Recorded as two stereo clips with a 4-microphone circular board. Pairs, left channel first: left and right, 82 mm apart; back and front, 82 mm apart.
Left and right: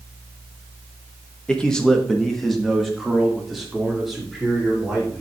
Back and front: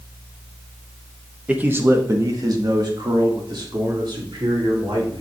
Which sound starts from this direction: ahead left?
A man speaking, at 1.5 s.